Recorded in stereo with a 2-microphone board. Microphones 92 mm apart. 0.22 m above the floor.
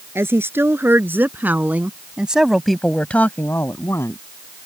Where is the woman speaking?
25° right (ahead or behind); by 4.2 s 30° left (ahead or behind).